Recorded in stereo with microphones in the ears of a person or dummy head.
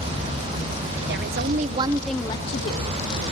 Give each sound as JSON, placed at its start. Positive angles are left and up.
{"t": 1.1, "sound": "a woman speaking", "side_deg": -55, "distance_m": 0.9}